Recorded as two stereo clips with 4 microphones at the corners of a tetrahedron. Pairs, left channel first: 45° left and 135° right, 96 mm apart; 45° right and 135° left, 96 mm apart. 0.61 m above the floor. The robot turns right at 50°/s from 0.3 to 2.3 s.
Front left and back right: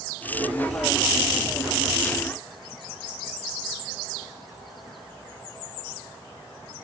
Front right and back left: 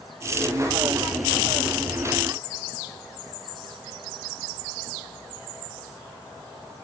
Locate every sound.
Only background noise.